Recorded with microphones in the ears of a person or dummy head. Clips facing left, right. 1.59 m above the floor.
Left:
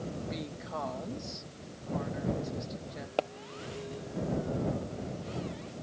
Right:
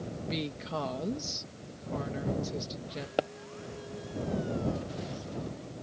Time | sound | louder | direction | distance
0.2 | a woman speaking | right 3 dB | 45° right (ahead or behind) | ?
3.2 | a pop | right 1 dB | 15° right (ahead or behind) | ?